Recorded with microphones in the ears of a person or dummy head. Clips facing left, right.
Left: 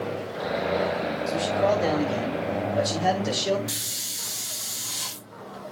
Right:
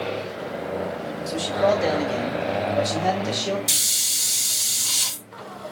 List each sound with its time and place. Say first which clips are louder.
1.3 s a man speaking: right 3 dB; 15° right (ahead or behind), 5.5 m; by 3.6 s 10° left (ahead or behind), 4.5 m
3.7 s a hiss: left 1 dB; 40° right (ahead or behind), 2.5 m